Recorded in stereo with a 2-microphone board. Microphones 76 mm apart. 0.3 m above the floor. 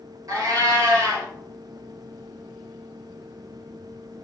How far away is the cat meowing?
About 1.5 m.